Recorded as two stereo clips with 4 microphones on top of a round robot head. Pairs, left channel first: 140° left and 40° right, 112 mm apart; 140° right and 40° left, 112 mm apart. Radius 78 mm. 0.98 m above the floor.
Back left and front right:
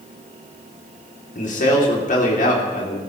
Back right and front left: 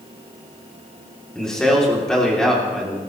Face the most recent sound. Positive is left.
turn(degrees=135)